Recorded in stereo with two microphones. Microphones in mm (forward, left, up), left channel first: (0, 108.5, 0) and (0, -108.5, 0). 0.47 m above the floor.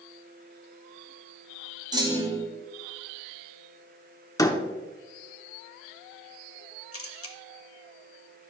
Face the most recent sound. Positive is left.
turn(degrees=80)